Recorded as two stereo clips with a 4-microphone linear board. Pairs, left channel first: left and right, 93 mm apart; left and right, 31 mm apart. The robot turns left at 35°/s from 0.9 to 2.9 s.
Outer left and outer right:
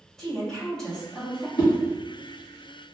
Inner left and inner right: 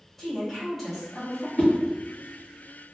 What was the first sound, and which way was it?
A woman speaking, 10° left (ahead or behind).